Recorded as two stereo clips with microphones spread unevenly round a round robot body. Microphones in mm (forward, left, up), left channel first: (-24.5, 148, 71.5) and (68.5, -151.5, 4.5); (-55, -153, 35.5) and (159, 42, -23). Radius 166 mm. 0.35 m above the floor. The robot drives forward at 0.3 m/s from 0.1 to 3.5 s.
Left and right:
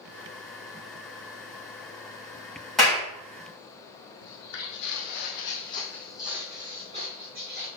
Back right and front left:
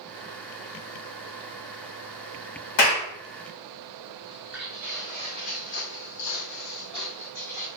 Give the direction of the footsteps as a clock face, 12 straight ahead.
8 o'clock.